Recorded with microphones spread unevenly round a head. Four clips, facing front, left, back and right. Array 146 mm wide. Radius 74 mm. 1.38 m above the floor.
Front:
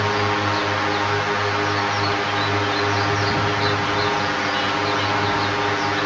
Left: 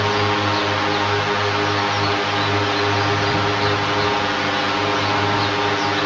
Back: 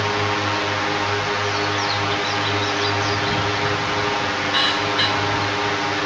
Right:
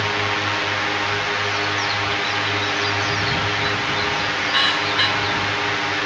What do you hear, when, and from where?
0.0 s a drone: 85° left